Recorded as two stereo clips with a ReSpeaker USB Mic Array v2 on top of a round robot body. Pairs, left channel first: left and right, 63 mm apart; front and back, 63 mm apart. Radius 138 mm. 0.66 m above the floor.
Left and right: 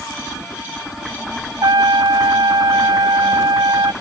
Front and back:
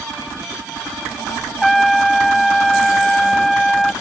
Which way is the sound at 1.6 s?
90° right.